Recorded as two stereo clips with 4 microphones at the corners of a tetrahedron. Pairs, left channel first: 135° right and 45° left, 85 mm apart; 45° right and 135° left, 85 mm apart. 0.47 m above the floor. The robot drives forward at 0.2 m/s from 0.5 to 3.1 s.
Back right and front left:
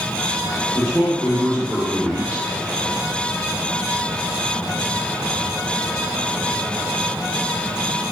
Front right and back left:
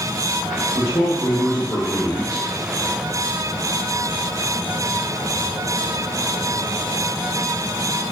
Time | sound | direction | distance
0.7 | a man speaking | 55° right | 1.0 m